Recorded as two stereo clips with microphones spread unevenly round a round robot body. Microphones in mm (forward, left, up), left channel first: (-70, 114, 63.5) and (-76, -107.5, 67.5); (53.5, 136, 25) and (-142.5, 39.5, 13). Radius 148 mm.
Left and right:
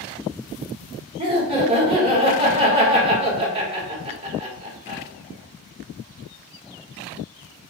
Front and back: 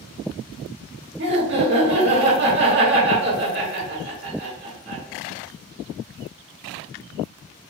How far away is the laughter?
About 1.5 m.